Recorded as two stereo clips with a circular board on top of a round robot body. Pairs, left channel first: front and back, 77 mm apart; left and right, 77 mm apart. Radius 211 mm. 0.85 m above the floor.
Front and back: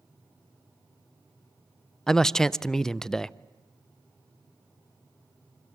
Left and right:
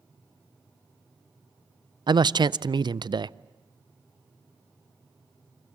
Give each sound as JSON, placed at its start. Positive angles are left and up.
{"t": 2.1, "sound": "a man speaking", "azimuth_deg": -85, "distance_m": 0.7}